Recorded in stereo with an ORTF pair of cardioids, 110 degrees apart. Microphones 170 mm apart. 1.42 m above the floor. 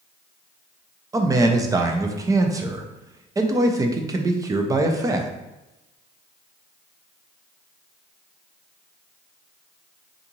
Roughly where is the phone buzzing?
I don't hear a phone buzzing.